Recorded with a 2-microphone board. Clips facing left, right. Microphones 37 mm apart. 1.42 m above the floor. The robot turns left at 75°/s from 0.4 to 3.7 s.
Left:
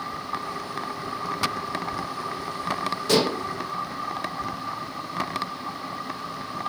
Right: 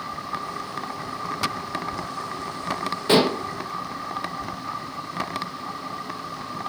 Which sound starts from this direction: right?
Dishes clattering, at 3.1 s.